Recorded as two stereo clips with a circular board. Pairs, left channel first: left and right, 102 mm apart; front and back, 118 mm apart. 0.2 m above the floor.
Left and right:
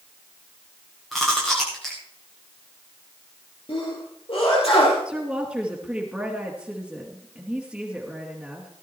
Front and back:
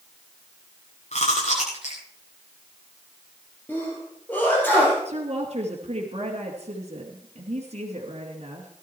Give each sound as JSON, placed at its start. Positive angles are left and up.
{"t": 1.1, "sound": "chewing", "azimuth_deg": 0, "distance_m": 7.5}
{"t": 3.7, "sound": "a sneeze", "azimuth_deg": 75, "distance_m": 5.0}
{"t": 5.0, "sound": "a woman speaking", "azimuth_deg": -170, "distance_m": 2.5}